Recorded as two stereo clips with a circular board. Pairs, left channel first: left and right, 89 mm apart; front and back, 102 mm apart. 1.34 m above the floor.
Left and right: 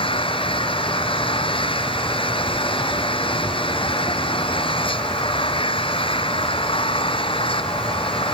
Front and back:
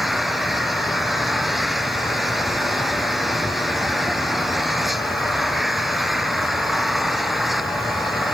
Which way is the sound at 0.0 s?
90° left.